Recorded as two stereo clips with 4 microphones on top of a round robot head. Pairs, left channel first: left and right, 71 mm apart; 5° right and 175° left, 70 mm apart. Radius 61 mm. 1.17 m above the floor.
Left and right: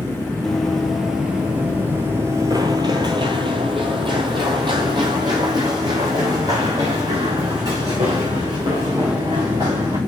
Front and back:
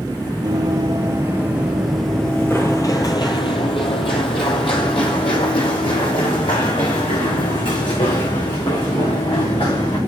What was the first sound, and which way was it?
Running footsteps, 175° left.